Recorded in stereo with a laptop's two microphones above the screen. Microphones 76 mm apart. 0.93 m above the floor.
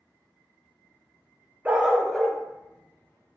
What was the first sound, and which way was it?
A dog barking, 20° right (ahead or behind).